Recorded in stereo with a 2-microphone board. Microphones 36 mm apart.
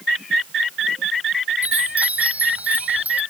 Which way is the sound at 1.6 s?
40° right (ahead or behind).